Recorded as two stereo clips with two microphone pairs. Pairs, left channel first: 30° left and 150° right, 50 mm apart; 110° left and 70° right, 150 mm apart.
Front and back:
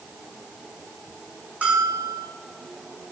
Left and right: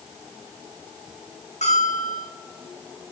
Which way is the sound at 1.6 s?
150° left.